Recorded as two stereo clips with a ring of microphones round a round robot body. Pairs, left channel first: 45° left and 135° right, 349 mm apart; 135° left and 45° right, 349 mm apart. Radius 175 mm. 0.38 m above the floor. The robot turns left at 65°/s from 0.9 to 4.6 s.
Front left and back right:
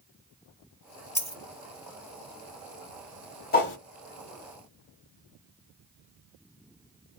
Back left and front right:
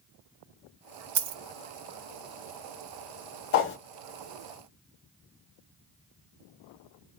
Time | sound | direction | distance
1.1 | a dropped coin | 35° right | 1.0 m
3.5 | a whoosh | 100° left | 1.0 m